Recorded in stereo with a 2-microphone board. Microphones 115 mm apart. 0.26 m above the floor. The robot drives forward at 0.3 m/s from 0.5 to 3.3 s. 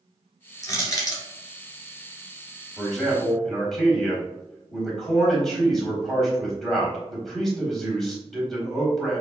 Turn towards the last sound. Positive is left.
turn(degrees=5)  # may be behind; listen again after turning